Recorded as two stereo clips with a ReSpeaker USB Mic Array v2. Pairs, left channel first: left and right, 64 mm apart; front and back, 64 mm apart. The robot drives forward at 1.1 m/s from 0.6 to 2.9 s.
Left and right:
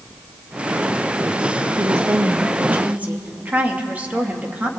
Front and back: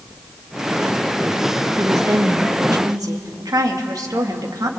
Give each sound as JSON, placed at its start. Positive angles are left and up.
{"t": 1.8, "sound": "a woman speaking", "azimuth_deg": -130, "distance_m": 1.1}